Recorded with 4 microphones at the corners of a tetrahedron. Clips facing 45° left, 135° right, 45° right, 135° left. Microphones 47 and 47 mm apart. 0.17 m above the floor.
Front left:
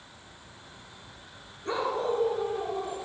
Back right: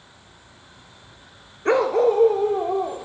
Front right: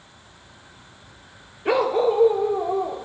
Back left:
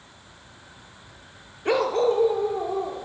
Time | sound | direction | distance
1.6 | a dog barking | 130° right | 1.1 m